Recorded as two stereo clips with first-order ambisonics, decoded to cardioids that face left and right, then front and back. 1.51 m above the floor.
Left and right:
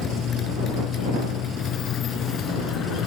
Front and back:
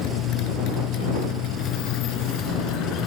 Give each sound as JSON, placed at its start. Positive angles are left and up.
{"t": 0.0, "sound": "a motorcycle", "azimuth_deg": 35}